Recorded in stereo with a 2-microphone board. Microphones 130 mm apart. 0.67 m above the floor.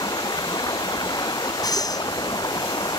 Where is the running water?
30° left (ahead or behind).